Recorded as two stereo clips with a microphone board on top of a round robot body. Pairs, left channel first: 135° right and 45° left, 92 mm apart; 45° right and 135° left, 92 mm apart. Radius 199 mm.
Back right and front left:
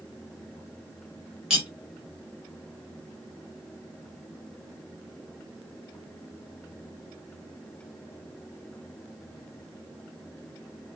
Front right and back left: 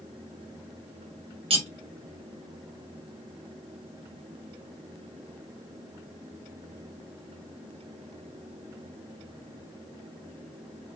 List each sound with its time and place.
1.5 s cutlery clinking: 130° left, 1.2 m